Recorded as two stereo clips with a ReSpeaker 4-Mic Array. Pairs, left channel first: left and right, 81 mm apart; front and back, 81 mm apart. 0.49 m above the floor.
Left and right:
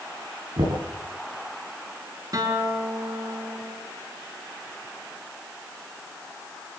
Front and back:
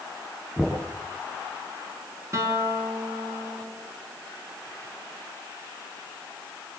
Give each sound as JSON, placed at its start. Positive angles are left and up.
{"t": 0.6, "sound": "knocking", "azimuth_deg": -95, "distance_m": 8.0}
{"t": 2.3, "sound": "a guitar", "azimuth_deg": -130, "distance_m": 4.5}